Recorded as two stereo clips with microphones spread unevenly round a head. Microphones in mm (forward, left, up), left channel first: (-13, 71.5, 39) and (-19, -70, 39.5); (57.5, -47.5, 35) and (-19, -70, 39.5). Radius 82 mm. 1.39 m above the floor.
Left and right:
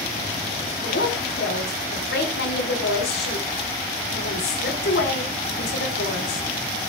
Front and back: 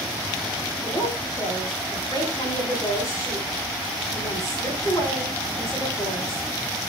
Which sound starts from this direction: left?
A woman speaking, at 0.8 s.